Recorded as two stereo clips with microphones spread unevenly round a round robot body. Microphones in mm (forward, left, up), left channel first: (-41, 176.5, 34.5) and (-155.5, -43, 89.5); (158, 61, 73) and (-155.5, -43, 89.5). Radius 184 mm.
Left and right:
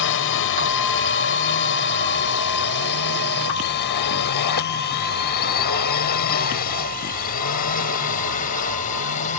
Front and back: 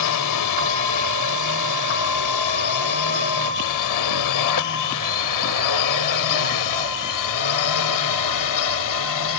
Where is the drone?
45° left; by 9.4 s 5° left.